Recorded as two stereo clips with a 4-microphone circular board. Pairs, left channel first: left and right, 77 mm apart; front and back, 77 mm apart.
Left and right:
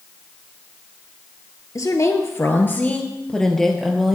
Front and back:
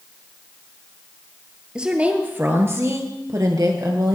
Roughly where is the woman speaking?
Left.